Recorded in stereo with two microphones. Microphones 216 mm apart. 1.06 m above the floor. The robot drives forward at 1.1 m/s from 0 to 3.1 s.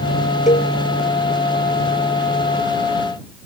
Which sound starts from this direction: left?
A cowbell, at 0.5 s.